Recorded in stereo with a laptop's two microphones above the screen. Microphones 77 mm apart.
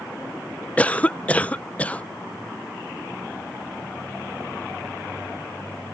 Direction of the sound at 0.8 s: 20° left (ahead or behind).